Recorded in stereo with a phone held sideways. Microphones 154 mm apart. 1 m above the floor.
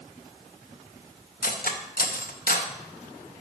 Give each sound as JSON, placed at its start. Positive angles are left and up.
{"t": 1.4, "sound": "cutlery clinking", "side_deg": 65, "distance_m": 0.6}